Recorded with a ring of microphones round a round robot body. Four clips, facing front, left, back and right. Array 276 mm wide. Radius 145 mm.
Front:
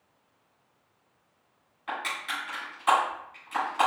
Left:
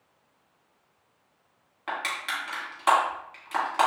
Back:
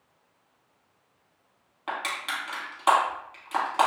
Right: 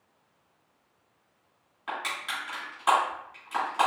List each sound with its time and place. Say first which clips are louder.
1.9 s crushing: left 2 dB, back 2 dB; 150° left, 2.5 m